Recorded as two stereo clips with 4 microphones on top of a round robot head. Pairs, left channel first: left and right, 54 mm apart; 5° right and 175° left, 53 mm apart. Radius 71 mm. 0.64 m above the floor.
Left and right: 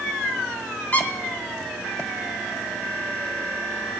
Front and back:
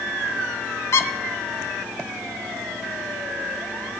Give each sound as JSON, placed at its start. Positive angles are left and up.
{"t": 0.9, "sound": "a squeak", "azimuth_deg": 25, "distance_m": 1.1}